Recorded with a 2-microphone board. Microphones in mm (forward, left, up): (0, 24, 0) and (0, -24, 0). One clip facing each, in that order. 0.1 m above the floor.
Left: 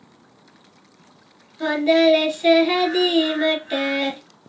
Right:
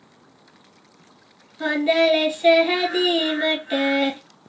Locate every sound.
1.6 s singing: 5° right (ahead or behind), 0.9 m